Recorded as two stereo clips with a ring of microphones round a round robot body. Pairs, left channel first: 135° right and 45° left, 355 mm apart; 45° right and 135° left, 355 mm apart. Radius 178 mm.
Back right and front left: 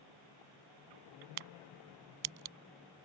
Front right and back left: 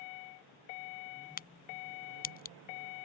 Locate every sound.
1.4 s a crack: 20° left